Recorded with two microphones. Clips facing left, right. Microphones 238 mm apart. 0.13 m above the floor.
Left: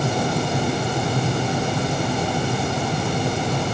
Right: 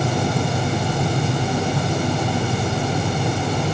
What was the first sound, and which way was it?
Only background noise.